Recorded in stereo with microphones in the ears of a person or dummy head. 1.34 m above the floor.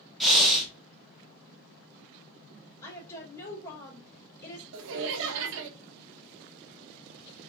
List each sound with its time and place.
0.2 s breathing: 5° left (ahead or behind), 0.9 m
2.8 s a woman speaking: 20° left (ahead or behind), 1.7 m
4.7 s laughter: 70° right (ahead or behind), 0.6 m